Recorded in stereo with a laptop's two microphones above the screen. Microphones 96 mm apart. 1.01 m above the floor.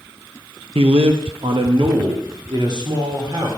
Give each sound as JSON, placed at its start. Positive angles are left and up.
{"t": 0.8, "sound": "a man speaking", "side_deg": -70, "distance_m": 0.6}